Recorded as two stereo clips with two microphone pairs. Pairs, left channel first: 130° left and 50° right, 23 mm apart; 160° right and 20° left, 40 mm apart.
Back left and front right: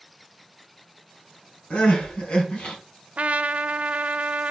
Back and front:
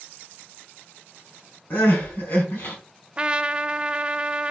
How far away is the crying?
About 4 m.